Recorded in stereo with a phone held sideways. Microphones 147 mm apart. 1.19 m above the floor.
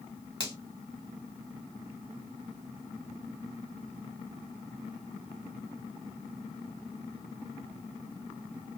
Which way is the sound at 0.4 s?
35° left (ahead or behind).